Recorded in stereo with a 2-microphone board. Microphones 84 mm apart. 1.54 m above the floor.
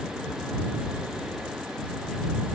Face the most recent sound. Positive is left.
No sound to turn to.